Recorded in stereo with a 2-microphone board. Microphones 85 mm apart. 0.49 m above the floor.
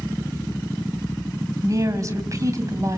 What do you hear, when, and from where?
1.6 s a woman speaking: 40° right (ahead or behind), 3 m